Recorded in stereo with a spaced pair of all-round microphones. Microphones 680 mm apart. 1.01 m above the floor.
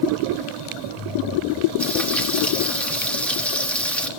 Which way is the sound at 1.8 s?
Centre (ahead or behind).